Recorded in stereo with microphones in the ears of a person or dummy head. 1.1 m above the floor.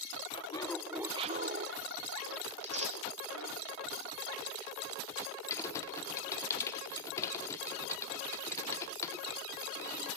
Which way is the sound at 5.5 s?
20° left (ahead or behind).